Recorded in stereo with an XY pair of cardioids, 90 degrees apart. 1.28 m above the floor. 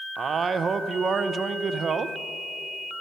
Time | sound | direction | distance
0.2 | a man speaking | 50° right | 0.8 m